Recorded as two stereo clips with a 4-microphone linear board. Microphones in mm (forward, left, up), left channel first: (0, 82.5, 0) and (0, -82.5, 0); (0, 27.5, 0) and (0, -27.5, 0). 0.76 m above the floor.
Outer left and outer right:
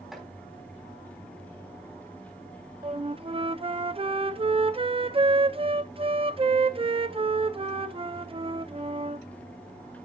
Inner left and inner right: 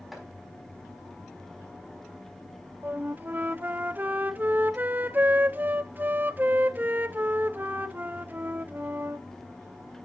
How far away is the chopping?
About 4.5 m.